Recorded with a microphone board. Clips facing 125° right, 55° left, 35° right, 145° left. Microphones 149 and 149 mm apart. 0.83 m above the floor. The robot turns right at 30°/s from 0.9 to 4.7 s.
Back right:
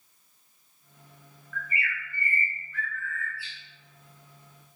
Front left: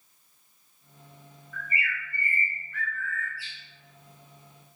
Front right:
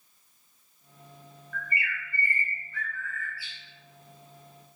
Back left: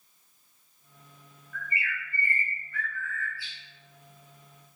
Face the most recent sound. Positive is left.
turn(degrees=90)